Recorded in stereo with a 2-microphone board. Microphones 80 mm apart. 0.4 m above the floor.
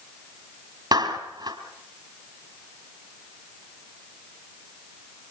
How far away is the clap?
About 3 m.